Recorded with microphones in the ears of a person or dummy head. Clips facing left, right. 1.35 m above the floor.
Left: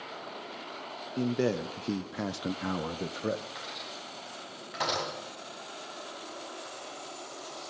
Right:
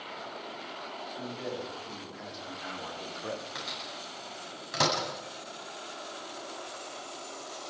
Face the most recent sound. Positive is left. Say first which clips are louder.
# right 1 dB
turn(degrees=-55)  # may be behind; listen again after turning